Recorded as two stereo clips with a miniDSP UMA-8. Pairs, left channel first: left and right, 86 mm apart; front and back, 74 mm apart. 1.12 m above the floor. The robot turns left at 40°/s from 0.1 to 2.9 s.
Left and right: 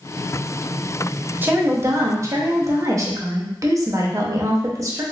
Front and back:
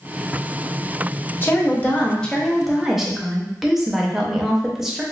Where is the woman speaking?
40° right, 0.6 m; by 5.0 s 100° right, 0.6 m.